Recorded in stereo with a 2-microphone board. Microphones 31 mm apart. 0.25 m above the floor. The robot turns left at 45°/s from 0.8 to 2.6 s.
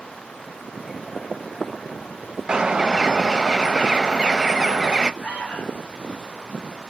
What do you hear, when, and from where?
2.5 s a bird: 25° right (ahead or behind), 0.6 m
5.2 s an alarm: 55° left (ahead or behind), 3.5 m